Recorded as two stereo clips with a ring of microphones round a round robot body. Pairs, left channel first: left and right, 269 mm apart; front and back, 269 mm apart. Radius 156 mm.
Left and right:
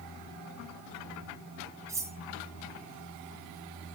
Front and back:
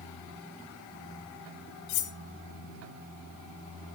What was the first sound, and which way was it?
Cutlery clinking, 10° right.